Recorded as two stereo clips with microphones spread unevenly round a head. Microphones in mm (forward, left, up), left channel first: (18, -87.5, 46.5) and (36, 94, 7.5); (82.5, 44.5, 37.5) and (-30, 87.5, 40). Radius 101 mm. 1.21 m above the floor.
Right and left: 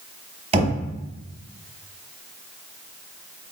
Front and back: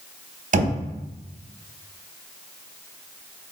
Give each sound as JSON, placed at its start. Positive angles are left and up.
{"t": 0.5, "sound": "knocking", "azimuth_deg": 145, "distance_m": 1.1}